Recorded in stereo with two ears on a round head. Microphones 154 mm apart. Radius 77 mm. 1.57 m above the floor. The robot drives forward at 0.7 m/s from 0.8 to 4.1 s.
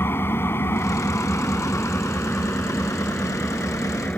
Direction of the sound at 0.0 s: 15° left (ahead or behind).